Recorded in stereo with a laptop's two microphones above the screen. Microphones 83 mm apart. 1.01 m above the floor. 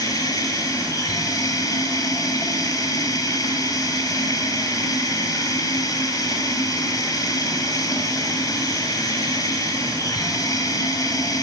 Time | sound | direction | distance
0.0 | running water | 45° left (ahead or behind) | 5.5 m